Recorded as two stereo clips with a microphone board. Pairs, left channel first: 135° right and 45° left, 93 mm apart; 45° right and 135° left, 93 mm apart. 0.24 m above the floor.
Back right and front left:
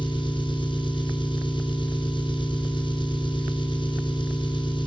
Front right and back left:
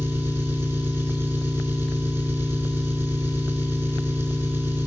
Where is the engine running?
160° right, 2.5 m.